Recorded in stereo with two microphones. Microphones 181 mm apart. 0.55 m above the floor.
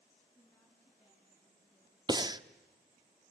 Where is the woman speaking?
15° left (ahead or behind), 5 m.